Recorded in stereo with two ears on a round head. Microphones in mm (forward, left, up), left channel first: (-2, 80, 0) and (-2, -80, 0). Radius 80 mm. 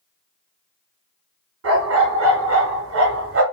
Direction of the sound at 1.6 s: 75° right (ahead or behind).